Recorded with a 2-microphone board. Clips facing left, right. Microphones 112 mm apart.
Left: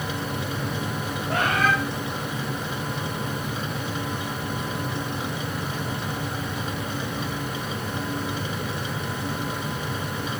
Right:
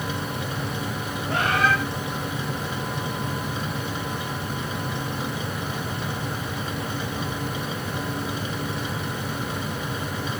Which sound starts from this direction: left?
A bird, at 1.3 s.